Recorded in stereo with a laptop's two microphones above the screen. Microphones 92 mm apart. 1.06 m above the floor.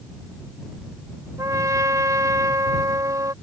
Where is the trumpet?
35° right (ahead or behind).